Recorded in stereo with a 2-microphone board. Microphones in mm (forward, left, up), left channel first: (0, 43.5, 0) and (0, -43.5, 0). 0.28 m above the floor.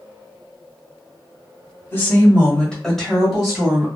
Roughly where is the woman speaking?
Left.